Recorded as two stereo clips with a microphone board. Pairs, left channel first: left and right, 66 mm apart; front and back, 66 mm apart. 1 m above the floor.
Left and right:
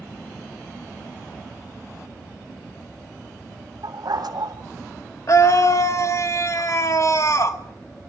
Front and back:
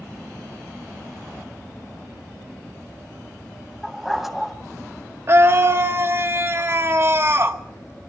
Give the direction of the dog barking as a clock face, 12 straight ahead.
3 o'clock.